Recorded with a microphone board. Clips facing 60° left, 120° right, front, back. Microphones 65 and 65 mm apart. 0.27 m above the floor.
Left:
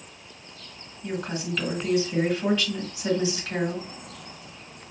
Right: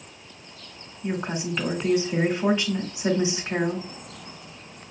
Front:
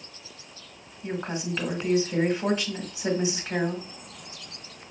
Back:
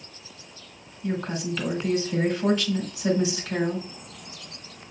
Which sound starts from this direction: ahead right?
A woman speaking, at 1.0 s.